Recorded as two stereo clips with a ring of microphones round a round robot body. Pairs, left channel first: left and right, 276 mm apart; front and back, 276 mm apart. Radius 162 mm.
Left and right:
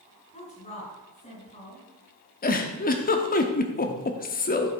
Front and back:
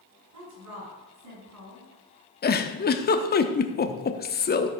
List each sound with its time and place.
0.3 s a woman speaking: 155° left, 5.5 m
2.4 s a giggle: 45° left, 1.0 m